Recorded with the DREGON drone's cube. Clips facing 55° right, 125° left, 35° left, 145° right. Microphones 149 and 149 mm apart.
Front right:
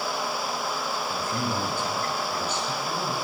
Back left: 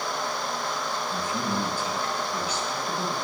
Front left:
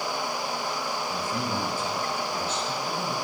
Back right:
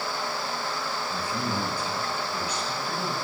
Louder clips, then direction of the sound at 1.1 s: Back left 1 dB, back right 1 dB; 25° right.